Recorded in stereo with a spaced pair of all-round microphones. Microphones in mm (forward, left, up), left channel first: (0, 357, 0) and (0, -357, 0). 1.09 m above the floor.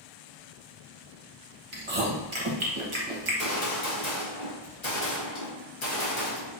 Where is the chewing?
45° right (ahead or behind), 1.0 m.